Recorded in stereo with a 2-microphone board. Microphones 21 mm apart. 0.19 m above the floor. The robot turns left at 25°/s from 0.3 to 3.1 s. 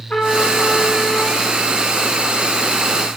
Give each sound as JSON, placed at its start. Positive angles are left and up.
{"t": 0.1, "sound": "a trumpet", "side_deg": 55, "distance_m": 6.0}